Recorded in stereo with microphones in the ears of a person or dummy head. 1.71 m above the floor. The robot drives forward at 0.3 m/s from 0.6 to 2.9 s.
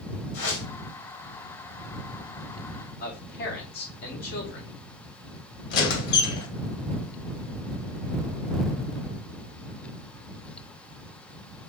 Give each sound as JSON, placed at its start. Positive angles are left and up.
{"t": 0.3, "sound": "a whoosh", "side_deg": 70, "distance_m": 2.5}
{"t": 3.0, "sound": "a man speaking", "side_deg": 65, "distance_m": 1.6}
{"t": 5.7, "sound": "a squeak", "side_deg": 55, "distance_m": 1.4}